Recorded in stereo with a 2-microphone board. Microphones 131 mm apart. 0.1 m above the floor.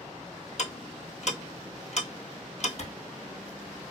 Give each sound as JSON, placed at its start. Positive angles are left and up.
{"t": 0.6, "sound": "ticking", "side_deg": 60, "distance_m": 0.9}
{"t": 2.8, "sound": "a clap", "side_deg": 50, "distance_m": 1.8}